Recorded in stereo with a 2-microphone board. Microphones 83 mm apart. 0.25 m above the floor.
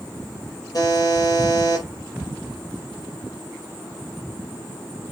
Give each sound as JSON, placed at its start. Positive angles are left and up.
{"t": 0.7, "sound": "a buzzer", "side_deg": 45, "distance_m": 6.0}